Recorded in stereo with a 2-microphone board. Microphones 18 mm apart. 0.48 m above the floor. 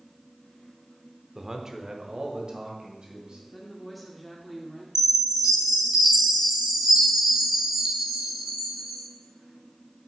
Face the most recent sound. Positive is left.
turn(degrees=-35)  # may be behind; listen again after turning